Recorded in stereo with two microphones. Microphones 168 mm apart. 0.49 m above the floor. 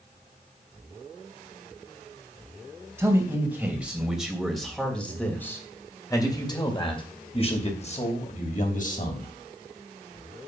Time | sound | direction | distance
3.0 | a man speaking | 15° right (ahead or behind) | 3 m